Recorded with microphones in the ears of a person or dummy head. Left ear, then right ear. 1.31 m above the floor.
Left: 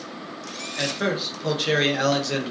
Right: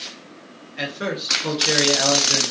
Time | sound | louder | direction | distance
0.8 | a man speaking | left 1 dB | 5° right (ahead or behind) | 0.6 m